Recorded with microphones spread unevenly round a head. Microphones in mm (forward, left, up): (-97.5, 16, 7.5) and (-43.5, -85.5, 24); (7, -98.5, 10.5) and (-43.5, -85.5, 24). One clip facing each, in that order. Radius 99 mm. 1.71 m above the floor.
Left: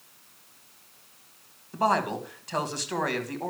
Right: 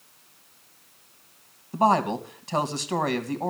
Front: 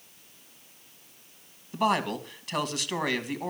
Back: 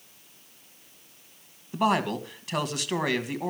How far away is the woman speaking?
About 2 m.